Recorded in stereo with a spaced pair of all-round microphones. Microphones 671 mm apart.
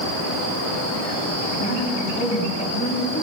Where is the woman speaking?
10° left (ahead or behind), 8.5 m.